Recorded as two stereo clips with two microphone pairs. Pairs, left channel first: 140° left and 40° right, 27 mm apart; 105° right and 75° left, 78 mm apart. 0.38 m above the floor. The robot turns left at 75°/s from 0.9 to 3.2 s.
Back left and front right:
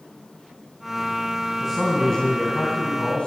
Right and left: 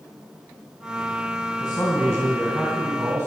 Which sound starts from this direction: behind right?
A man speaking, at 1.6 s.